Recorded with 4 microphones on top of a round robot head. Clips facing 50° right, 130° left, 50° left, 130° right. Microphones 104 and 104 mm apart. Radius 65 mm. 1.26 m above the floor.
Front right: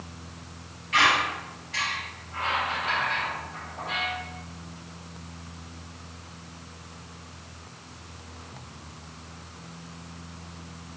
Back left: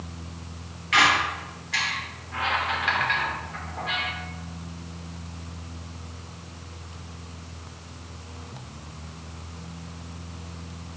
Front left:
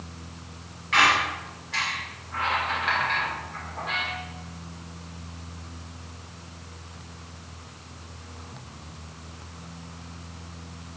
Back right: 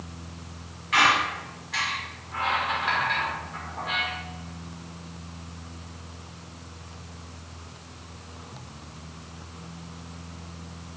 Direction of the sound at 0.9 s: 145° left.